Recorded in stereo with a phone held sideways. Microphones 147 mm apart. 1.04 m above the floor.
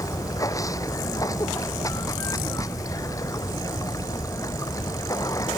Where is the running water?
25° left (ahead or behind).